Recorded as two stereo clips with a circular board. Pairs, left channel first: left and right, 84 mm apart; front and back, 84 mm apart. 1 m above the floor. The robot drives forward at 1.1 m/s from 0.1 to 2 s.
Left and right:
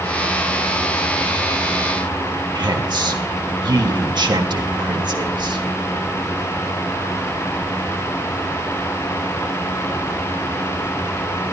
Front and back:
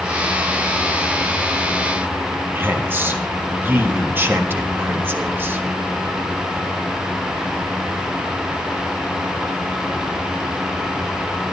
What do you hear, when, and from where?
2.5 s a woman speaking: 115° right, 1.4 m